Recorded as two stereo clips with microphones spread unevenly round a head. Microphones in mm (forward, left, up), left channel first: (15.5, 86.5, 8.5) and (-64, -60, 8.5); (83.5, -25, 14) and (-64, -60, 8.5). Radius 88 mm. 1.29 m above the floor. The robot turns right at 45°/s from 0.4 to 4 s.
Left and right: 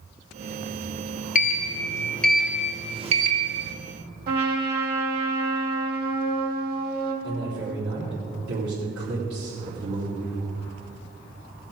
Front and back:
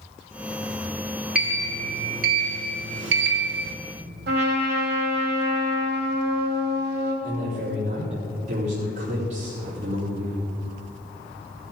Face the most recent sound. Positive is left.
turn(degrees=-120)